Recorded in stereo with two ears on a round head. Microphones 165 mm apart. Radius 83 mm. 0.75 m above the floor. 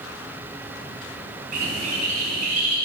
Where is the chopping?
No chopping in this recording.